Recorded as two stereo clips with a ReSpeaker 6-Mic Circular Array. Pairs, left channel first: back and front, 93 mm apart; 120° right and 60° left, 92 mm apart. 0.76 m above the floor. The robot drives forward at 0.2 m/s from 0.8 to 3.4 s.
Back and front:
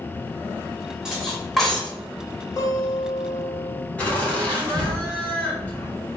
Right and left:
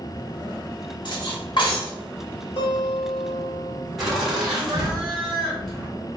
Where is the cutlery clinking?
85° right, 0.9 m; by 1.9 s 95° right, 0.9 m.